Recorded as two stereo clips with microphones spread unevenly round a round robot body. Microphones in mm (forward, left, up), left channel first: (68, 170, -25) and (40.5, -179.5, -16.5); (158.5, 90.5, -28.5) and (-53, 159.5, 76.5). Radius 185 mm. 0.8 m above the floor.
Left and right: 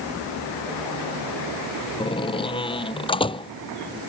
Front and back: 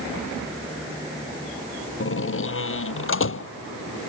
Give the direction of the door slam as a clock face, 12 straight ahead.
12 o'clock.